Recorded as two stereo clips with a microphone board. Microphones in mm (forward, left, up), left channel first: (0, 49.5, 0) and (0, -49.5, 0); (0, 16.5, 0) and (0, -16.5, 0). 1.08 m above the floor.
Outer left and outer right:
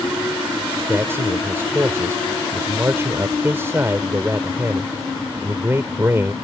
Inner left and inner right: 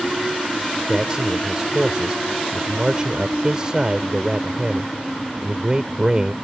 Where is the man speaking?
25° right (ahead or behind).